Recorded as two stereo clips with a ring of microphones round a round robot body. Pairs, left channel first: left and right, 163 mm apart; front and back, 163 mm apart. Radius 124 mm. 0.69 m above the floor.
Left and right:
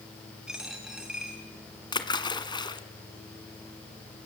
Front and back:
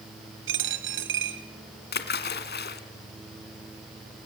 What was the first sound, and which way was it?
A dropped coin, 175° right.